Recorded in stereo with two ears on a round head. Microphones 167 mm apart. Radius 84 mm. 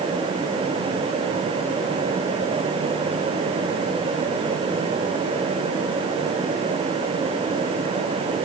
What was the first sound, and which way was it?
Only background noise.